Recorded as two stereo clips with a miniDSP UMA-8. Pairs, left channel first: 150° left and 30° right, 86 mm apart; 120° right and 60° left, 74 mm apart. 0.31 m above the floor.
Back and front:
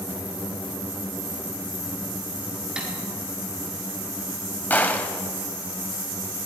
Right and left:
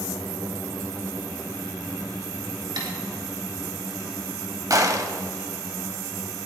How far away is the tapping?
About 4.5 m.